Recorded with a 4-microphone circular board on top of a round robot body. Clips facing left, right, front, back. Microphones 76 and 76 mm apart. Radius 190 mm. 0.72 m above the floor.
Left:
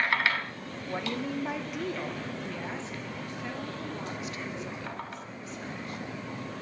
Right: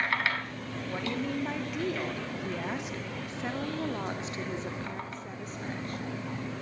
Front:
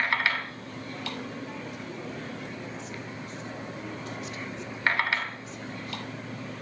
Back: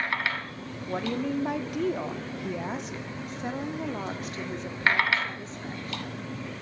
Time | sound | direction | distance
0.9 | a woman speaking | 165° left | 2.5 m